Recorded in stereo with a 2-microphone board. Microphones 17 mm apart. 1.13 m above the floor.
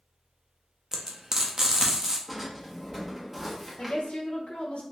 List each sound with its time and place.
0.9 s frying: 35° right (ahead or behind), 0.6 m
2.3 s a drawer: 5° right (ahead or behind), 0.9 m
3.8 s a woman speaking: 80° left, 0.6 m